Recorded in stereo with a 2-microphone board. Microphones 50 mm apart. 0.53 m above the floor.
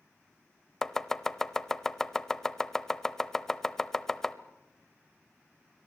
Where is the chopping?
10° left (ahead or behind), 0.8 m.